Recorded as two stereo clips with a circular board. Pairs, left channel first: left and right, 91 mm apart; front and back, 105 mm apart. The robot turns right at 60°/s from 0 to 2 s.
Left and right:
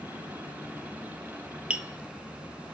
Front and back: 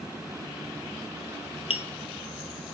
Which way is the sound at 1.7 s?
15° right.